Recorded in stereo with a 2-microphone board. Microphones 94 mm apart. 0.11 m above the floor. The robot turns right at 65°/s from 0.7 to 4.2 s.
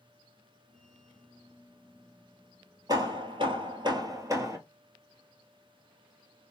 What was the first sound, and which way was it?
Hammering, 130° right.